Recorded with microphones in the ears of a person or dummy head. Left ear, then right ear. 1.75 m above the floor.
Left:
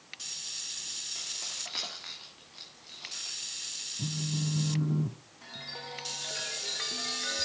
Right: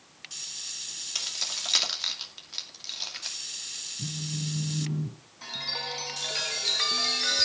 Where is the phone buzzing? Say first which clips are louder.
Right 1 dB; 40° left (ahead or behind), 0.9 m.